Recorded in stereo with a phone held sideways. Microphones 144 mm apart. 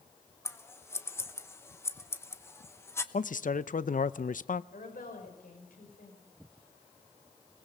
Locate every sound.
0.5 s scissors: 15° left (ahead or behind), 1.0 m
3.1 s a man speaking: 65° left (ahead or behind), 0.5 m
4.7 s a woman speaking: 80° left, 5.5 m